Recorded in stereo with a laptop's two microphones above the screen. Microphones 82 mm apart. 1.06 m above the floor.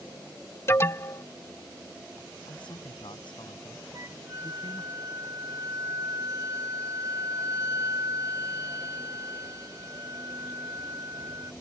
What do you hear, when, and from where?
0.7 s an alarm: 35° left (ahead or behind)
2.5 s a man speaking: 80° left
3.9 s a flute: 45° right (ahead or behind)